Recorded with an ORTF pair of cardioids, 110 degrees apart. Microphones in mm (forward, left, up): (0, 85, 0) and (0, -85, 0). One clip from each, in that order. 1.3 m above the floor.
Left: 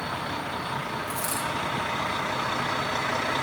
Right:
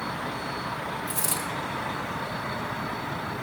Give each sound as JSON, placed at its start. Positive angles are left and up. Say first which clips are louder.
{"t": 1.1, "sound": "a dropped coin", "louder": "left 1 dB", "azimuth_deg": -40, "distance_m": 5.0}